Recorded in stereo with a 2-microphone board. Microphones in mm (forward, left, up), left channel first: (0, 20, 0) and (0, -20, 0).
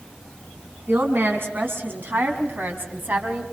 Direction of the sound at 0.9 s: 70° right (ahead or behind).